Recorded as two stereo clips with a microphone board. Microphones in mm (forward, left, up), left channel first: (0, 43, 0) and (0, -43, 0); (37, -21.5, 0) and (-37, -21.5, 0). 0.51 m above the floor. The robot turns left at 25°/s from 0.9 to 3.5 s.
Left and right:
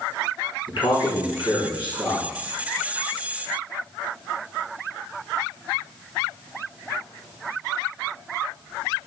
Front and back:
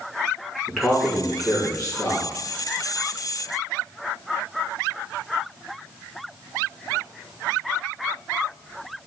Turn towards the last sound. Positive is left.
turn(degrees=25)